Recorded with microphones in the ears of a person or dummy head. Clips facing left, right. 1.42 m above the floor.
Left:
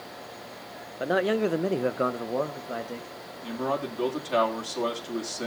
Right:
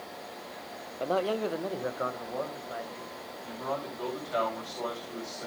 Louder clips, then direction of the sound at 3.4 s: Left 6 dB; 80° left.